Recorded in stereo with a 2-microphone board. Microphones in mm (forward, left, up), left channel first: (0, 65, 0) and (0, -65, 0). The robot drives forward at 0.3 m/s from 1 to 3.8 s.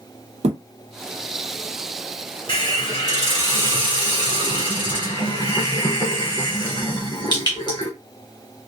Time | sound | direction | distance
0.4 | a thud | 55° right (ahead or behind) | 0.7 m
2.5 | a hiss | 35° left (ahead or behind) | 1.6 m